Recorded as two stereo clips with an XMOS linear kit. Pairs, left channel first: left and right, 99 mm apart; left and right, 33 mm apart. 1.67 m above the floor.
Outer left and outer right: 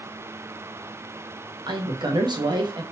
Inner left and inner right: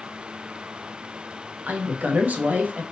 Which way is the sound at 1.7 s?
50° right (ahead or behind).